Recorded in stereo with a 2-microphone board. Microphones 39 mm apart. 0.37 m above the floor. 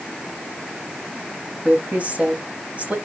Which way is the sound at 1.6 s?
35° right (ahead or behind).